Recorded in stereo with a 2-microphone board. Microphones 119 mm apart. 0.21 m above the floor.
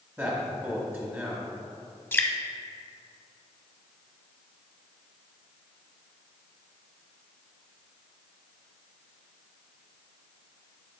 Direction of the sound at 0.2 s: 20° right (ahead or behind).